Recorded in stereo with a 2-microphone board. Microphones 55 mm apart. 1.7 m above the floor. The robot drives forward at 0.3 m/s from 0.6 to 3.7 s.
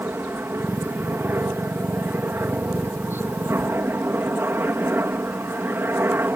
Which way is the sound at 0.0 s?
45° right (ahead or behind).